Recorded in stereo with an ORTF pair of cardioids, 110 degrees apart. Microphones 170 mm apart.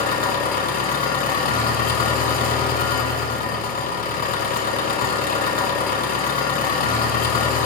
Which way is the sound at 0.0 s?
55° left.